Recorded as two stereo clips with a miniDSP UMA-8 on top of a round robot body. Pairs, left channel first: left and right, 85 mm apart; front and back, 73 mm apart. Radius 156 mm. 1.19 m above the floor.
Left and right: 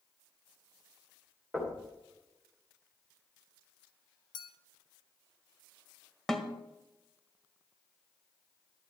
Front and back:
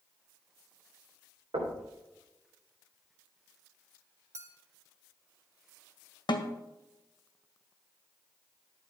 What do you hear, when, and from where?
1.5 s knocking: 170° left, 3.5 m
4.3 s a clink: 125° left, 0.7 m
6.3 s a snare drum: 5° left, 1.7 m